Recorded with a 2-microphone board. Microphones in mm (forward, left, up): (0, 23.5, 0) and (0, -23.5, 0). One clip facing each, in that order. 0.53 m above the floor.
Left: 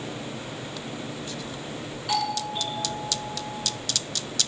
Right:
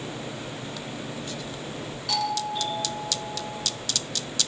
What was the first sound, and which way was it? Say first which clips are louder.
A doorbell: even; 15° left (ahead or behind).